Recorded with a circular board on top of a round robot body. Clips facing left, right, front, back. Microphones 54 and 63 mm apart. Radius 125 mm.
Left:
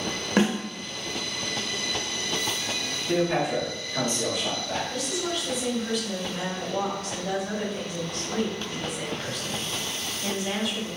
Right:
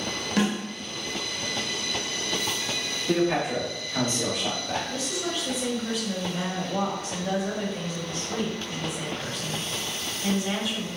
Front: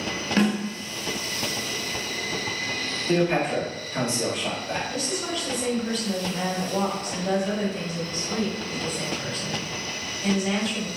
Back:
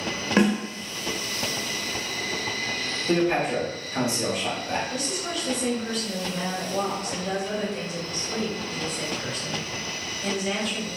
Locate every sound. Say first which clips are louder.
0.4 s a snare drum: left 2 dB, back 2 dB; 125° left, 0.9 m
3.1 s a man speaking: even, even; 105° right, 1.4 m
4.9 s a woman speaking: left 1 dB, front 1 dB; 35° right, 1.6 m